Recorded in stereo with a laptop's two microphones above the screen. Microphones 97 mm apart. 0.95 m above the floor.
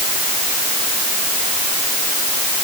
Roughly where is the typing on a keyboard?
No typing on a keyboard in this recording.